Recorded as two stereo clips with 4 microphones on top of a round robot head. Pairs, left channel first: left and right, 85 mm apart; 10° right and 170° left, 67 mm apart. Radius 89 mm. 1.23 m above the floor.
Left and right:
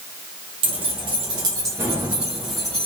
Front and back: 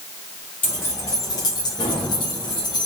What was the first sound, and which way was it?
Keys jangling, 75° right.